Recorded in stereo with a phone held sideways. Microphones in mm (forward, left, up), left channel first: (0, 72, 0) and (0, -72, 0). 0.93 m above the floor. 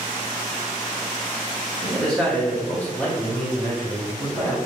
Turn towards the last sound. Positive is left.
turn(degrees=10)  # may be behind; listen again after turning